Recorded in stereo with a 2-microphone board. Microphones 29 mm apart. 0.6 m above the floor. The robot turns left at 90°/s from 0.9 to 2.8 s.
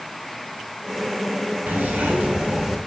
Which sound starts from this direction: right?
A zipper, at 1.7 s.